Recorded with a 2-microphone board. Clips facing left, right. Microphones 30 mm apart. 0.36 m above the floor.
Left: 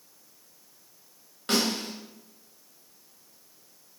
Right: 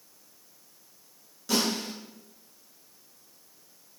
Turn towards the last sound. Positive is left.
turn(degrees=65)  # may be behind; listen again after turning